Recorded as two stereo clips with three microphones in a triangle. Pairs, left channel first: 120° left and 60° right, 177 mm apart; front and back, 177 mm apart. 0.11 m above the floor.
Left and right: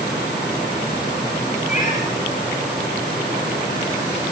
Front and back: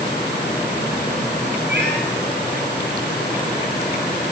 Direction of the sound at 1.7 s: 165° left.